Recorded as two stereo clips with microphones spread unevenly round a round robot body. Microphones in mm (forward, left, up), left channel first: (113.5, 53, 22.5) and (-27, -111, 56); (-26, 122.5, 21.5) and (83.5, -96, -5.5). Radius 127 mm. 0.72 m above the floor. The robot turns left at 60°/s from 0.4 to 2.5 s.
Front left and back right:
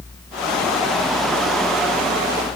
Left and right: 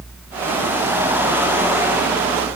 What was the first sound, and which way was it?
Only background noise.